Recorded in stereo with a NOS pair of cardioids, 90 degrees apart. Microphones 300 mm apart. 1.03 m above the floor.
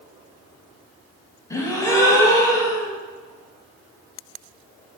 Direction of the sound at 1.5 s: 10° left.